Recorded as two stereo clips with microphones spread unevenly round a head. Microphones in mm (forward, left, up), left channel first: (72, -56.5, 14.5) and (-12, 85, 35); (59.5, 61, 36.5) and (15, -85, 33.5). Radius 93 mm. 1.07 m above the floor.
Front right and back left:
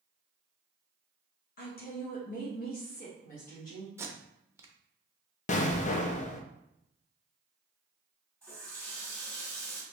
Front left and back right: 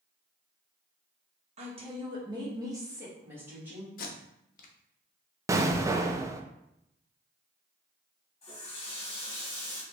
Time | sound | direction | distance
1.6 | a woman speaking | 70° right | 1.2 m
4.0 | tape being pulled | 45° left | 0.7 m
5.5 | an explosion | 40° right | 0.5 m
8.4 | a running tap | 25° left | 1.7 m